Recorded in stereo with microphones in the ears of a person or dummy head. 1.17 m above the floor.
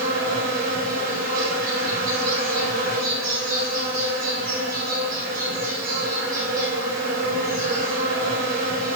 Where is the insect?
40° right (ahead or behind), 1.7 m.